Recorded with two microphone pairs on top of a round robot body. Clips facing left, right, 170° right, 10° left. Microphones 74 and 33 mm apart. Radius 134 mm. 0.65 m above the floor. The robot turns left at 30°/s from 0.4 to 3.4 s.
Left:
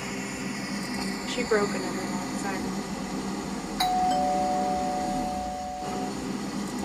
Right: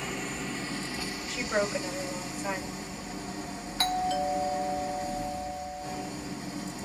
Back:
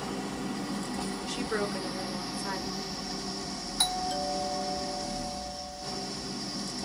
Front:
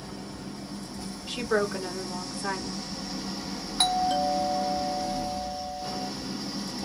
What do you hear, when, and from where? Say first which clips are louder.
0.0 s an engine running: left 2 dB, back 5 dB; 175° left, 1.0 m; by 6.9 s 85° left, 1.0 m
1.3 s a woman speaking: left 4 dB, front 7 dB; 65° left, 2.5 m; by 2.9 s 15° left, 2.5 m
3.8 s a doorbell: left 5 dB, front 6 dB; 25° left, 1.6 m